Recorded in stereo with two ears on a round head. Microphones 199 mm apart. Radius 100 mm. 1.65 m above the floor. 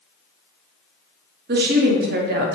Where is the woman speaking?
50° right (ahead or behind), 0.6 m.